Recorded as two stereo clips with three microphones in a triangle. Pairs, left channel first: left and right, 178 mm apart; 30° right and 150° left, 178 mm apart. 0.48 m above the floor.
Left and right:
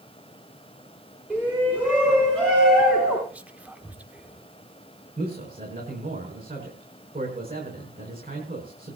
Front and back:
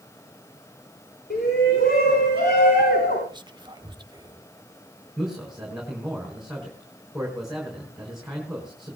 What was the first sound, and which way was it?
A shout, 5° right.